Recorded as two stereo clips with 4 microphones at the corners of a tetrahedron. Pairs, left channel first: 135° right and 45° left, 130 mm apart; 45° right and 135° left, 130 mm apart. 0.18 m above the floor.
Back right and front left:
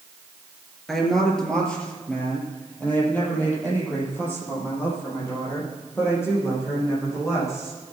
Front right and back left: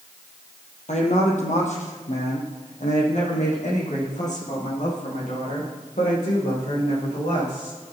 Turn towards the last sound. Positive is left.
turn(degrees=-65)